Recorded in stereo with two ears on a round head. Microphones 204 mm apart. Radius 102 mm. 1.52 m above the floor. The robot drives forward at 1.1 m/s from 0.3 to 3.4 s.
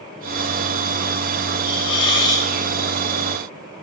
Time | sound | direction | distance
1.6 | a hiss | 20° left (ahead or behind) | 0.7 m